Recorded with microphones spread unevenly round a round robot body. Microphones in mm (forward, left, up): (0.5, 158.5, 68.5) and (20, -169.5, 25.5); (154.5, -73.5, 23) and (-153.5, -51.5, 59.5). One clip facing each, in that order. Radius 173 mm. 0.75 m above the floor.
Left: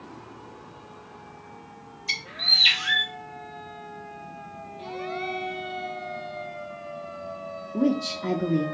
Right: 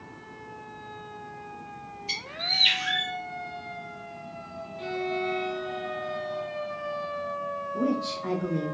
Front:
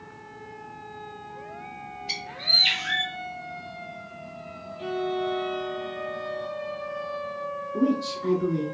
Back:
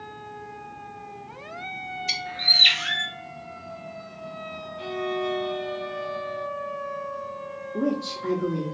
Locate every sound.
2.1 s a bird: 155° left, 1.1 m
4.8 s a violin: 145° right, 1.3 m
7.7 s a woman speaking: 70° left, 0.9 m